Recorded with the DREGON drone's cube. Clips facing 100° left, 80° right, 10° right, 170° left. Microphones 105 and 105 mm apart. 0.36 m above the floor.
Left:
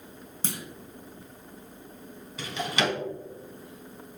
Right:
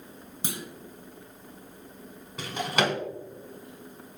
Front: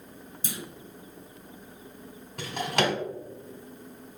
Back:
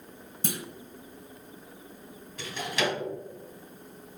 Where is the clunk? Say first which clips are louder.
Even, back 5 dB; 155° right, 0.8 m.